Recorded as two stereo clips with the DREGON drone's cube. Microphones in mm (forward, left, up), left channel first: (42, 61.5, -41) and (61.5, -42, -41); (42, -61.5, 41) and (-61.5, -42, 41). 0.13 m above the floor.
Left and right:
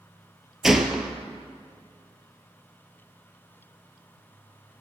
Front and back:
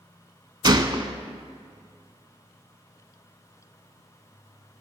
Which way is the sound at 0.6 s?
165° right.